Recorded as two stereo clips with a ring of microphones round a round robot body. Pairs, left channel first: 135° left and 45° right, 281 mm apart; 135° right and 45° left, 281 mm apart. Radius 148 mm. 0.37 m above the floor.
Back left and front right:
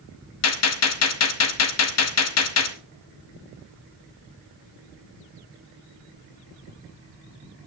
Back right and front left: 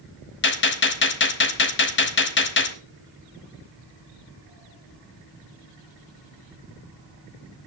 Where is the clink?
No clink in this recording.